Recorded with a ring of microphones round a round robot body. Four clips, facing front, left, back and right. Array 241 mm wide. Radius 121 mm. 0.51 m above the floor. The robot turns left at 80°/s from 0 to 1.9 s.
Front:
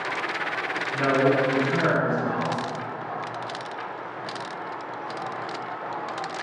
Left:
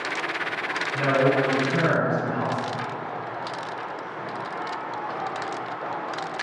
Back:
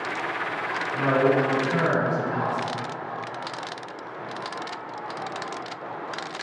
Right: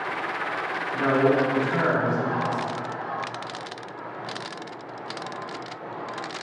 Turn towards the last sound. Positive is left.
turn(degrees=-70)